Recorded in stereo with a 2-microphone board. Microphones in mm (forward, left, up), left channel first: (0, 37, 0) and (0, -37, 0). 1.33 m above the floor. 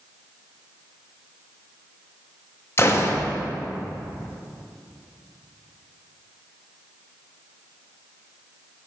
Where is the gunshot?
35° left (ahead or behind), 0.6 m.